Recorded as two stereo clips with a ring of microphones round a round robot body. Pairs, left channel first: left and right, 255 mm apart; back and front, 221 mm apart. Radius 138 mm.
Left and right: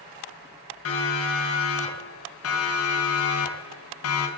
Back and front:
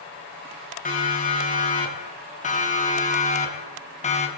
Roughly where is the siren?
Behind left.